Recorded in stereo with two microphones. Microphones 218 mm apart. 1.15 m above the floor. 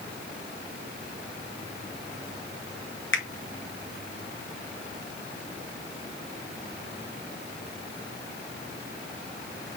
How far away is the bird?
I don't hear a bird.